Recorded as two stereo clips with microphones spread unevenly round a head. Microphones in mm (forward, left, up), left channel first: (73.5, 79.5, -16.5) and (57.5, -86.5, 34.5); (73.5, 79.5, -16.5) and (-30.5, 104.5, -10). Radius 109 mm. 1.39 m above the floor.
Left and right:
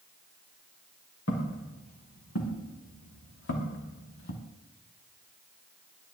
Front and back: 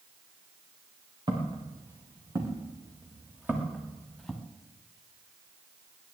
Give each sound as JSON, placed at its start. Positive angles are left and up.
{"t": 1.3, "sound": "footsteps", "azimuth_deg": 125, "distance_m": 6.5}